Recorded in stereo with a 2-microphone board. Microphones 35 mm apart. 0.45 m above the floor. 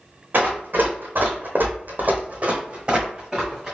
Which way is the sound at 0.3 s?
55° right (ahead or behind).